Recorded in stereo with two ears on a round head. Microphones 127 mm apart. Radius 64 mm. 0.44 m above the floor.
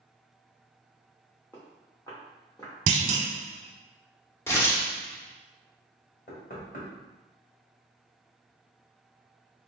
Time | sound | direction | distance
1.5 | footsteps | 15° left (ahead or behind) | 1.5 m
2.9 | a clunk | 50° right (ahead or behind) | 0.8 m
4.5 | tearing paper | 20° left (ahead or behind) | 0.8 m
6.3 | knocking | 60° left (ahead or behind) | 1.6 m